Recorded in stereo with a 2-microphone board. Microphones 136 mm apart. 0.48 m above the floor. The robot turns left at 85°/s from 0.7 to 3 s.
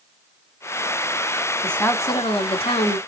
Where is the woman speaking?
175° left, 0.9 m; by 3.0 s 60° left, 0.9 m.